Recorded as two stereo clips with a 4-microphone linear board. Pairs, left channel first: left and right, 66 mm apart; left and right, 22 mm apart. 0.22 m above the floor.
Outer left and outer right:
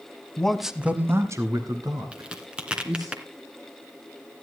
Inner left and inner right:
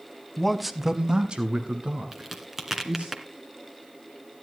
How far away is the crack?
About 1.8 m.